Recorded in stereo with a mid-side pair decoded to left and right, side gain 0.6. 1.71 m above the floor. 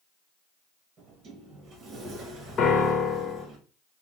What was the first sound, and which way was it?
A sliding door, 40° right.